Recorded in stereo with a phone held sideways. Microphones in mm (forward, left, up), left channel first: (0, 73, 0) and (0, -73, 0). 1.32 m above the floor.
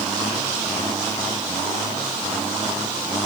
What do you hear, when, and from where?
Only background noise.